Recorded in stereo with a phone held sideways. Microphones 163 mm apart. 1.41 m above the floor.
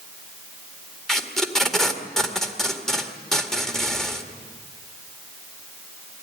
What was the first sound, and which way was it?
Tape being pulled, 5° left (ahead or behind).